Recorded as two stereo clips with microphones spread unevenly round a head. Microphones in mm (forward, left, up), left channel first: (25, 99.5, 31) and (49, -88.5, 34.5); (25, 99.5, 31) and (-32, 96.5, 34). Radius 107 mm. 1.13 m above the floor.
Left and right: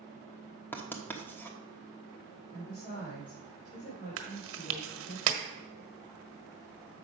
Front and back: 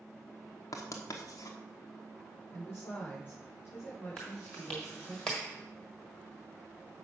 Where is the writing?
15° left, 1.1 m.